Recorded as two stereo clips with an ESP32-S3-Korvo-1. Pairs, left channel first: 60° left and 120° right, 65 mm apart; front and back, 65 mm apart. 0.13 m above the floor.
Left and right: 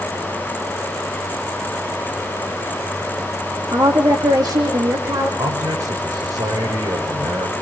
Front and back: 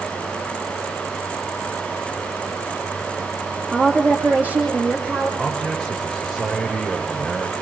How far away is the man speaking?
About 8.5 m.